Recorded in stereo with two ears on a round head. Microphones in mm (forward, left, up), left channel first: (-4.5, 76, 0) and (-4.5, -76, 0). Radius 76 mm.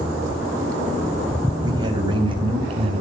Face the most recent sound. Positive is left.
turn(degrees=-35)  # may be behind; listen again after turning